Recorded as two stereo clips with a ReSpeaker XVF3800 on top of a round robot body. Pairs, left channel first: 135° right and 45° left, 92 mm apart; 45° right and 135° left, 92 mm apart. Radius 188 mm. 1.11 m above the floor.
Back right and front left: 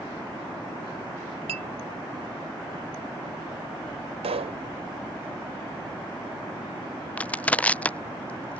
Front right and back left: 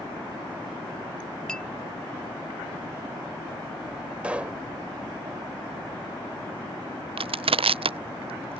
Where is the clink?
35° left.